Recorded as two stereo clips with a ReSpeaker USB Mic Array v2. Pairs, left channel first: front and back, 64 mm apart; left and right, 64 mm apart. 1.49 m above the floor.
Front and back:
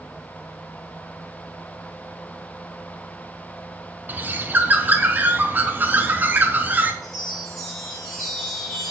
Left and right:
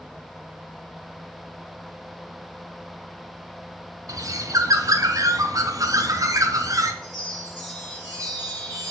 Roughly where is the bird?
Behind right.